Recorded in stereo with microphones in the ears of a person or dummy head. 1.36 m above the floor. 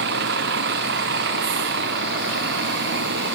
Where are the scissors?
No scissors in this recording.